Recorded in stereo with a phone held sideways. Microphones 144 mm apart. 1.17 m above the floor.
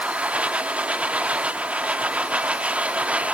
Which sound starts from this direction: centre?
A machine running, at 0.0 s.